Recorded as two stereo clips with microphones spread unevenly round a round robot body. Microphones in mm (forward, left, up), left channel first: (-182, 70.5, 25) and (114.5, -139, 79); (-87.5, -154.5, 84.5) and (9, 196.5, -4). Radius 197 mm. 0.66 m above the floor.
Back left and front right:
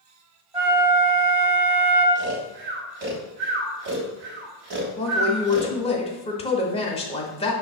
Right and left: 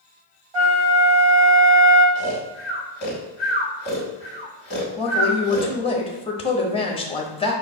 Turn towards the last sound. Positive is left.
turn(degrees=170)